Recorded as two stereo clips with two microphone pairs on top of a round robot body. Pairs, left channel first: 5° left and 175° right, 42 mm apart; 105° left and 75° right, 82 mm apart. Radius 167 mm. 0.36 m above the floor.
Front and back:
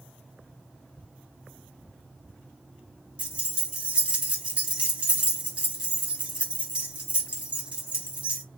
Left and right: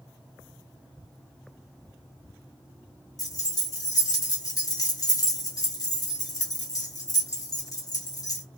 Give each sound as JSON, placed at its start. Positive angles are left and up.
{"t": 3.2, "sound": "keys jangling", "azimuth_deg": 130, "distance_m": 1.1}